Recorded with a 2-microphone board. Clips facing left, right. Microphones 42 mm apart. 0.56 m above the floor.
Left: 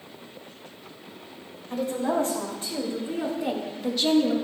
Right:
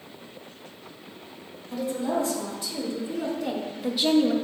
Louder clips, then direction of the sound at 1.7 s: Left 1 dB; 55° left (ahead or behind).